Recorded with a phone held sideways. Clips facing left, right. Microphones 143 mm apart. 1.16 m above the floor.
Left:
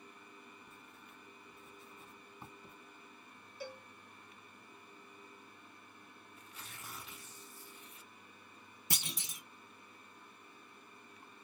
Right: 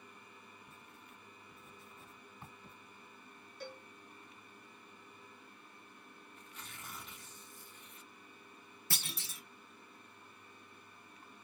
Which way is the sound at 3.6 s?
10° left (ahead or behind).